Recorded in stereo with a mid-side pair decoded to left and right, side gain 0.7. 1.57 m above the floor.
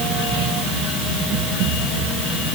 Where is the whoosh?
I don't hear a whoosh.